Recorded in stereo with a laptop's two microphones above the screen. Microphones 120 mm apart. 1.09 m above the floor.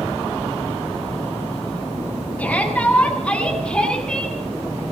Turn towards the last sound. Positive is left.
turn(degrees=5)  # may be behind; listen again after turning